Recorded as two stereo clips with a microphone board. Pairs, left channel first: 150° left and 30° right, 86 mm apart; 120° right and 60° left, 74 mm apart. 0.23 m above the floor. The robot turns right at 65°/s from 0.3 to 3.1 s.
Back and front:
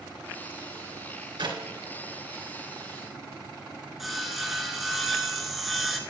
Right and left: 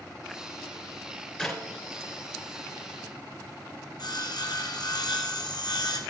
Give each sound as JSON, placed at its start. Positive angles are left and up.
{"t": 1.4, "sound": "a clap", "azimuth_deg": -40, "distance_m": 2.5}
{"t": 4.0, "sound": "sawing", "azimuth_deg": -120, "distance_m": 1.8}